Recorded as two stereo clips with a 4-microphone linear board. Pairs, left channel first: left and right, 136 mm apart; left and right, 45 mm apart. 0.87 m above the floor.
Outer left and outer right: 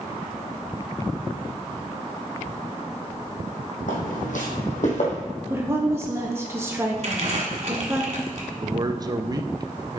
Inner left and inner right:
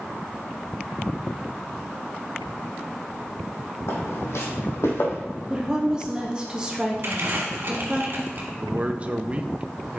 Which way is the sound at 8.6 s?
30° right (ahead or behind).